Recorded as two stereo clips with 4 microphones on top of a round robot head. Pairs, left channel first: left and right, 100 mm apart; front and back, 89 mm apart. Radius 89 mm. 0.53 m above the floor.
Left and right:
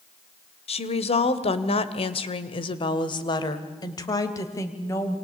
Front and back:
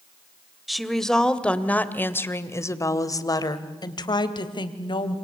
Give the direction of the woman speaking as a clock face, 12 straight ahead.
9 o'clock.